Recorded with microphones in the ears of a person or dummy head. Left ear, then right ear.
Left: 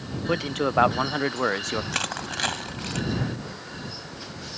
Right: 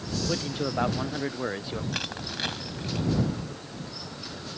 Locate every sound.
0.3 s a man speaking: 40° left (ahead or behind)
1.9 s crushing: 35° left (ahead or behind)